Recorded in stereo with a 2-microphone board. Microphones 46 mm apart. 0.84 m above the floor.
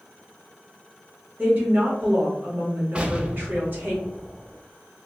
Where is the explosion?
25° right (ahead or behind), 0.5 m.